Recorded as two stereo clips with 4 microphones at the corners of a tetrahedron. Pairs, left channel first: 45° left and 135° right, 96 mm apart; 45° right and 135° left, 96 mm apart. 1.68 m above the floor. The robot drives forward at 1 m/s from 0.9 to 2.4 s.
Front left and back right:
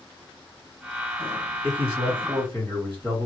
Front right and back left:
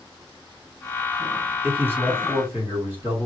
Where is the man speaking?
155° right, 2 m; by 3.3 s 160° right, 3 m.